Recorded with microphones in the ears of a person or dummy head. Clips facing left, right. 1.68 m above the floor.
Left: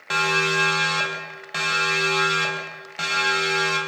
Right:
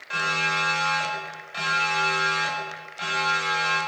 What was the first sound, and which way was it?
A siren, 85° left.